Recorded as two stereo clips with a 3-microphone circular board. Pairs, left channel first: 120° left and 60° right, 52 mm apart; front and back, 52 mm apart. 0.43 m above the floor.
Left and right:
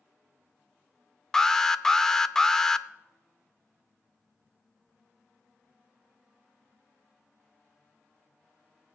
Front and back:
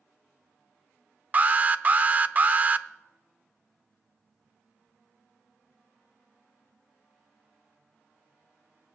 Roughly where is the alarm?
Behind.